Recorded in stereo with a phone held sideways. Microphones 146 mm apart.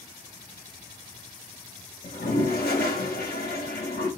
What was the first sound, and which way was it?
A toilet flushing, 80° left.